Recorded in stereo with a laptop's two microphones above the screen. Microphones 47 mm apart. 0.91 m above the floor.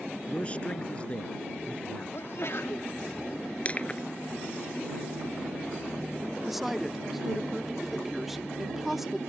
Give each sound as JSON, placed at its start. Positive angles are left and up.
{"t": 0.3, "sound": "a man speaking", "side_deg": 25}
{"t": 2.1, "sound": "a sneeze", "side_deg": 60}
{"t": 3.6, "sound": "crushing", "side_deg": 30}
{"t": 6.5, "sound": "a woman speaking", "side_deg": -5}